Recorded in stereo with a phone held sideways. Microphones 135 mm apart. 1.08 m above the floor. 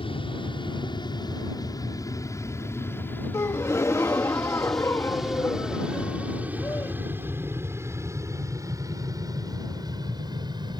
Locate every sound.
0.0 s an aircraft: 40° left (ahead or behind); by 10.8 s 35° right (ahead or behind)
3.3 s a gasp: 20° left (ahead or behind)